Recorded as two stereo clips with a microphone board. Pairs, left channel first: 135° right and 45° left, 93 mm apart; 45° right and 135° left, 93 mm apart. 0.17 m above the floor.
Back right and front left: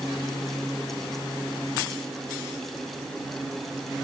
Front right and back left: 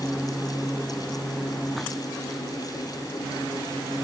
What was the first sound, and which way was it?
Only background noise.